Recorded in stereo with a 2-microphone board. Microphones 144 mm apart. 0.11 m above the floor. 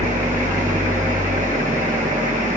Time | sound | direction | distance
0.0 | an engine running | 65° right (ahead or behind) | 4 m